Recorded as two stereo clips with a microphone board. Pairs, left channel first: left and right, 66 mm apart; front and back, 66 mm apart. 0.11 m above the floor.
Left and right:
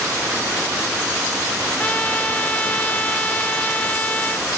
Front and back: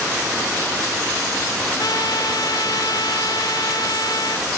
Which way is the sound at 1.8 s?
20° left.